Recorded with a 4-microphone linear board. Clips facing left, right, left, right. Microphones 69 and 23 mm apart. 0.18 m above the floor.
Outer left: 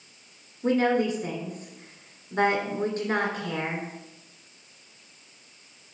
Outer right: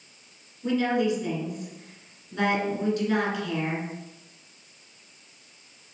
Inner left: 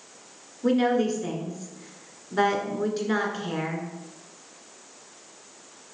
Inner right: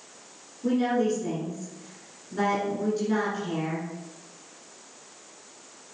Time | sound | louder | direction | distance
0.6 | a woman speaking | outer left 1 dB, inner left 2 dB | 40° left (ahead or behind) | 2 m